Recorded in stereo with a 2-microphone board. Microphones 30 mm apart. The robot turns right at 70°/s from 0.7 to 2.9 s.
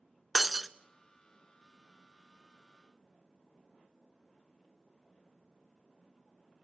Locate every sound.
0.3 s breaking glass: 5° right (ahead or behind), 0.6 m